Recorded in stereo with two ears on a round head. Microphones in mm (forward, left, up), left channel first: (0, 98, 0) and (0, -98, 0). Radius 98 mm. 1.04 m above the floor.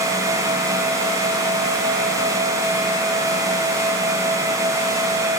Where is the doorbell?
No doorbell in this recording.